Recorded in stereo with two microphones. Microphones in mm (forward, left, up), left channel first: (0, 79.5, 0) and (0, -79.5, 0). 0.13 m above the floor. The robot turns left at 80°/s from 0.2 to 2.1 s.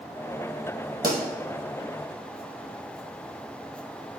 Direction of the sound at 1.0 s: 75° right (ahead or behind).